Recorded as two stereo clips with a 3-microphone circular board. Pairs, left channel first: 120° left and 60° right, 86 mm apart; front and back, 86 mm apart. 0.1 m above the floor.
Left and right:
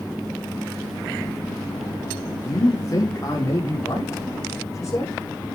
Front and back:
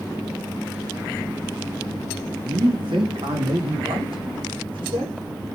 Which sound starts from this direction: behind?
A man speaking, at 2.4 s.